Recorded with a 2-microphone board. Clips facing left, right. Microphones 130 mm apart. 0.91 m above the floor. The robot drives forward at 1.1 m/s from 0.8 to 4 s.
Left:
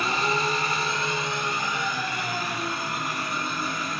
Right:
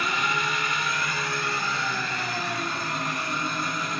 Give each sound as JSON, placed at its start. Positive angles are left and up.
{"t": 0.0, "sound": "an engine running", "side_deg": 30, "distance_m": 0.9}